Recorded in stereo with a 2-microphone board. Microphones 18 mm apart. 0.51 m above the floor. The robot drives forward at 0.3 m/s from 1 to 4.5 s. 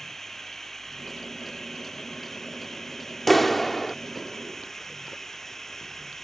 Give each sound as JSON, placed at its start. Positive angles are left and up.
{"t": 0.0, "sound": "running water", "side_deg": 15}
{"t": 3.3, "sound": "a clap", "side_deg": 10}